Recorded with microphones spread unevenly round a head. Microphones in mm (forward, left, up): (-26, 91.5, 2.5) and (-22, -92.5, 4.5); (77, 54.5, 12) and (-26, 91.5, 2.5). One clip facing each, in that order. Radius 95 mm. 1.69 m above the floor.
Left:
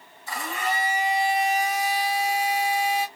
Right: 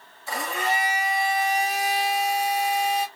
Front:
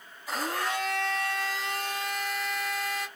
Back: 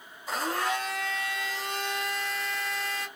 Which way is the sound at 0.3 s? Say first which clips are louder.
Right 2 dB, back 2 dB; 120° right.